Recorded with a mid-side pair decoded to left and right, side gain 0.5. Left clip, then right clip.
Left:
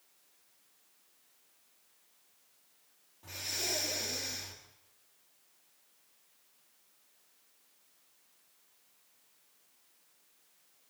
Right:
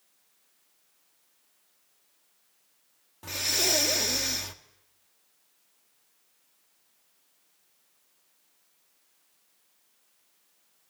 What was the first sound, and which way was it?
Breathing, 70° right.